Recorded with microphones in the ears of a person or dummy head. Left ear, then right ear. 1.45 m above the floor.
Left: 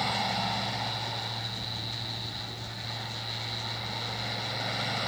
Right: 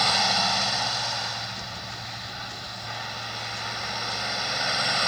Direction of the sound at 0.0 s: 40° right (ahead or behind).